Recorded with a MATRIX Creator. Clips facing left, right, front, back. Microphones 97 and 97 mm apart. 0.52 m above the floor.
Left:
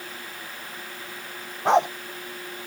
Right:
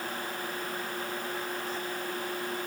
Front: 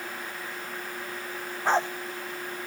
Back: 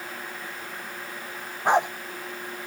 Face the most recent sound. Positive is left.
turn(degrees=105)